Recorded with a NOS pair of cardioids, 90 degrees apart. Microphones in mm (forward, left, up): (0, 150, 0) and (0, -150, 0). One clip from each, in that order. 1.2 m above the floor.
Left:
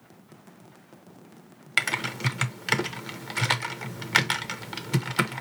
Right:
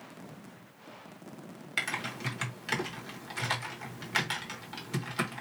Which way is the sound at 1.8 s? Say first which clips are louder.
Left 7 dB; 50° left.